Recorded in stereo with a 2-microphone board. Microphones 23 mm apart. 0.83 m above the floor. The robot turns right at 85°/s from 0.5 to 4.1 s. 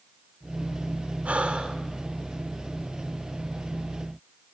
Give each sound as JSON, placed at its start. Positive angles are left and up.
{"t": 1.2, "sound": "breathing", "azimuth_deg": -85, "distance_m": 2.0}